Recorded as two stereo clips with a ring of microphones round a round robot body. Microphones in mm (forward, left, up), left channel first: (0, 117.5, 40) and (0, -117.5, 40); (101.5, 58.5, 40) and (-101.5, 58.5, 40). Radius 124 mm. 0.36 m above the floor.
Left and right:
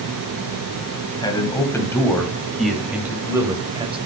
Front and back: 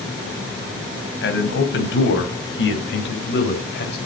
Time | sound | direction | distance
1.2 | a man speaking | 15° left | 2.5 m